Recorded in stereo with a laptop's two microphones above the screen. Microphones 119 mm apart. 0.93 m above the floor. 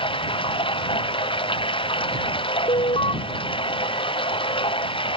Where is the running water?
45° left (ahead or behind).